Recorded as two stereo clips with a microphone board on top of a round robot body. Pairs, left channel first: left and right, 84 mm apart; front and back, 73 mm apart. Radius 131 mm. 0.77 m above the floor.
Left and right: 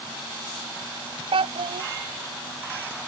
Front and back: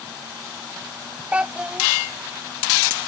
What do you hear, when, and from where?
1.3 s a child speaking: 105° right